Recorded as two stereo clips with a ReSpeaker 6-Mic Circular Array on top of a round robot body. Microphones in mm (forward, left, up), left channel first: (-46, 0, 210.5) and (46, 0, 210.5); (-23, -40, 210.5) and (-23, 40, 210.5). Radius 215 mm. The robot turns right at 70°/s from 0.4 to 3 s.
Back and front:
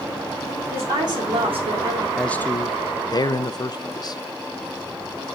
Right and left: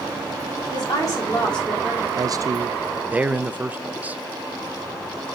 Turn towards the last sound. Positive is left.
turn(degrees=155)